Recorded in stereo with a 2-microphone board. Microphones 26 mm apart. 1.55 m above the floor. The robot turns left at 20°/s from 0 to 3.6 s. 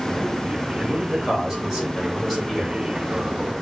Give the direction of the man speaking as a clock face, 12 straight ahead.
5 o'clock.